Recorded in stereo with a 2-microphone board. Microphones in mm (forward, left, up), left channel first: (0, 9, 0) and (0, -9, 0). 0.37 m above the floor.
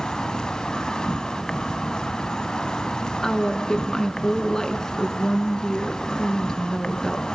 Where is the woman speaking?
30° left (ahead or behind), 4 m.